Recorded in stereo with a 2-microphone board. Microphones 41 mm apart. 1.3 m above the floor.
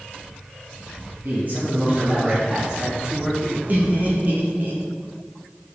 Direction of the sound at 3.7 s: 45° right (ahead or behind).